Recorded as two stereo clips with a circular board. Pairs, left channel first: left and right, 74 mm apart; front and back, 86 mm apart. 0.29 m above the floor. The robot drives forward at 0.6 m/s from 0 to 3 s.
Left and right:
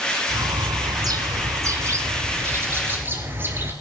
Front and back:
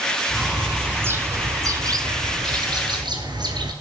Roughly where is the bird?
Right.